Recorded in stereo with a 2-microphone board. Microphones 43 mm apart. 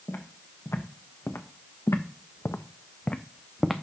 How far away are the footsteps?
About 1.6 m.